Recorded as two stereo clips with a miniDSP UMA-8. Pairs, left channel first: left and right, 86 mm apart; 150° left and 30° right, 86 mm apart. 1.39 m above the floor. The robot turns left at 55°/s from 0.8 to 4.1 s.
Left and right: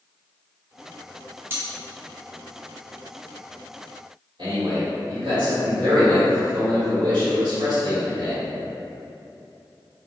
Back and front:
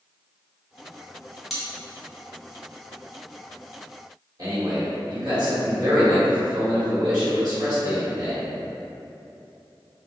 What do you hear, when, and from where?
1.5 s cutlery clinking: 110° right, 0.7 m; by 1.6 s 120° right, 0.7 m
4.4 s a man speaking: 70° right, 1.6 m